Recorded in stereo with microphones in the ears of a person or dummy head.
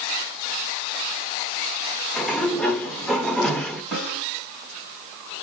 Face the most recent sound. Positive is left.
turn(degrees=0)  # may be behind; listen again after turning